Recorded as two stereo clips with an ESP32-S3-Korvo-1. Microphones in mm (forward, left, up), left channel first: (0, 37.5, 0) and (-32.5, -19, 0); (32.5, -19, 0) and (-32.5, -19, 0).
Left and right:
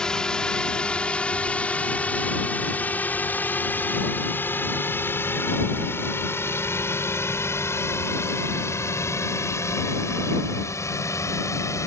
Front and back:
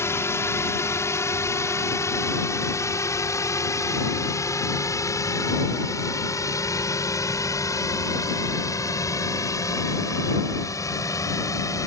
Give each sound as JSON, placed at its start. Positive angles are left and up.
{"t": 0.0, "sound": "a drone", "azimuth_deg": -15}